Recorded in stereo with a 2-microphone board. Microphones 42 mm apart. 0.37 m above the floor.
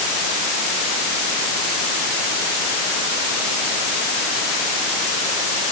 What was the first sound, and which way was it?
Only background noise.